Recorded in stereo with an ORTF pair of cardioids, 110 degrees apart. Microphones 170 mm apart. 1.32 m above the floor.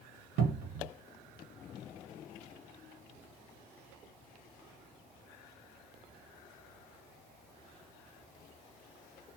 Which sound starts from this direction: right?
A cupboard door, at 0.4 s.